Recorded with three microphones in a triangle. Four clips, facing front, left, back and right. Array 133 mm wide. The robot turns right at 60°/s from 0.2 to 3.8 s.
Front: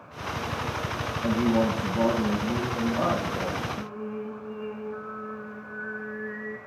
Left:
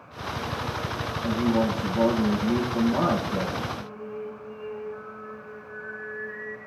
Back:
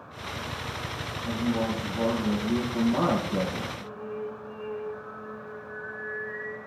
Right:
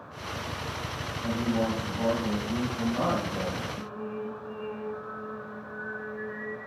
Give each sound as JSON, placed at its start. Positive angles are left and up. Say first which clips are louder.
{"t": 1.2, "sound": "a man speaking", "louder": "left 4 dB, front 5 dB", "azimuth_deg": 15, "distance_m": 6.5}
{"t": 3.8, "sound": "singing", "louder": "even, front 1 dB", "azimuth_deg": -25, "distance_m": 3.5}